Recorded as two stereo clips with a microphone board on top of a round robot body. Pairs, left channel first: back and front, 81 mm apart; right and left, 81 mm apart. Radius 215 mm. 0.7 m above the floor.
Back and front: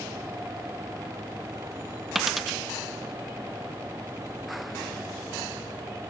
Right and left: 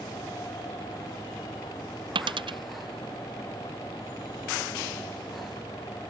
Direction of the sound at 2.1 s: 85° left.